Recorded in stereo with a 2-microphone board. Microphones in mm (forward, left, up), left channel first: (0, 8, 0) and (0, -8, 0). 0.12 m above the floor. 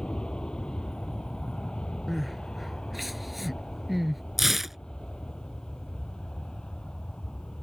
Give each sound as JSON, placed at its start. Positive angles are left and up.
{"t": 0.0, "sound": "an aircraft", "side_deg": 55}
{"t": 2.1, "sound": "crying", "side_deg": 0}
{"t": 4.4, "sound": "tearing paper", "side_deg": -10}